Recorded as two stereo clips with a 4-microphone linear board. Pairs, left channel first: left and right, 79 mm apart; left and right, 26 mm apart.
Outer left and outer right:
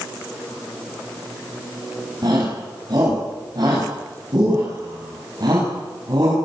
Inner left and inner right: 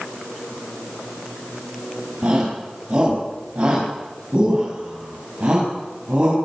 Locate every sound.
2.2 s a shout: 55° right (ahead or behind), 7 m